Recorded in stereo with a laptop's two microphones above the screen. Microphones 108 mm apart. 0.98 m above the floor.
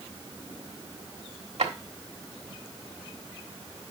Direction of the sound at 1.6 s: 80° right.